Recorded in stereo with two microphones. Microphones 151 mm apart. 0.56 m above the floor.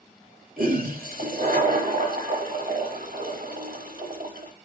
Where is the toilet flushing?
75° right (ahead or behind), 0.8 m.